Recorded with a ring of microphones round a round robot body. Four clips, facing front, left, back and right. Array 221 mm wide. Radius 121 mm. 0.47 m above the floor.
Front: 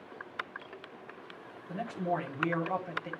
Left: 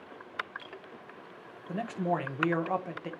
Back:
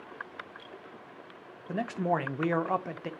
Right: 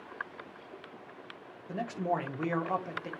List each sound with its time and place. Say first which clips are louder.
1.7 s a man speaking: left 1 dB, back 4 dB; 170° left, 1.0 m